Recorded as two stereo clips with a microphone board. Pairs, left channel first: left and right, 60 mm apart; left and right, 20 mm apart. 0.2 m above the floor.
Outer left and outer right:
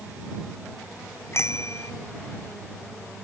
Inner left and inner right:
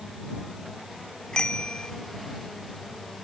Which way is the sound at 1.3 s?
45° left (ahead or behind).